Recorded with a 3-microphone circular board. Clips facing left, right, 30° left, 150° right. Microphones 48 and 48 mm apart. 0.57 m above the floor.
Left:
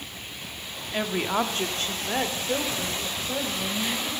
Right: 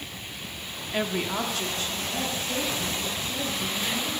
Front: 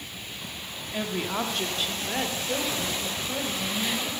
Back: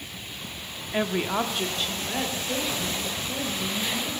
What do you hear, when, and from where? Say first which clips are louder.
0.9 s a woman speaking: left 2 dB, back 4 dB; 170° right, 0.8 m; by 4.2 s 95° left, 3 m